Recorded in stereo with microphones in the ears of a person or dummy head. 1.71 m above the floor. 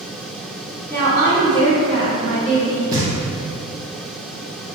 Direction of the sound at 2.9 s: 20° right (ahead or behind).